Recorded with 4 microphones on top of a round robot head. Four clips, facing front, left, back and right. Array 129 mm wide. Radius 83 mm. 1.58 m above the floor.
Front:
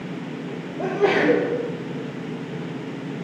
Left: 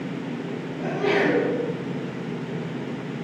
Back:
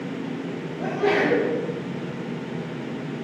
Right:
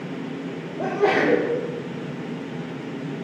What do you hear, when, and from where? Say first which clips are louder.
0.8 s a sneeze: right 2 dB, front 2 dB; 50° right, 2.5 m